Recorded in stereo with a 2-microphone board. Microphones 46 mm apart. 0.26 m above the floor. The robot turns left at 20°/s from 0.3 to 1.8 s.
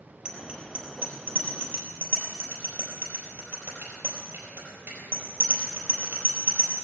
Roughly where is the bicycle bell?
Right.